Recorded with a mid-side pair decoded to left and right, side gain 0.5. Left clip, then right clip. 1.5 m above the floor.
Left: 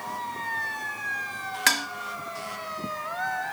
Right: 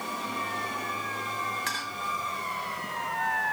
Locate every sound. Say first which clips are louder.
1.7 s dishes clattering: left 8 dB; 70° left, 2 m